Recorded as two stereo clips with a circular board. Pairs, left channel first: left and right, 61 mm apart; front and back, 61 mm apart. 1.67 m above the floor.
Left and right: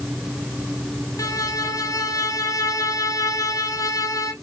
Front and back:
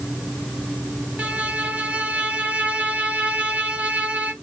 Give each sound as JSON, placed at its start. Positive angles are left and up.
{"t": 1.2, "sound": "a violin", "azimuth_deg": 110, "distance_m": 0.7}